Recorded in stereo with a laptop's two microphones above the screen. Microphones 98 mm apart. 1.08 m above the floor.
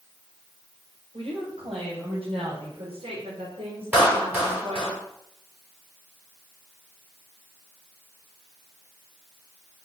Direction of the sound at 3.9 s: 20° right (ahead or behind).